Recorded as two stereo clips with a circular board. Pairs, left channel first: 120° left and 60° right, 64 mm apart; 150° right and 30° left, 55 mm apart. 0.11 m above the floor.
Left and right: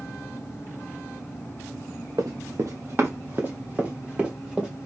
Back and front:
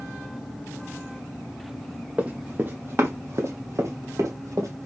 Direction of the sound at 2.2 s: 35° right.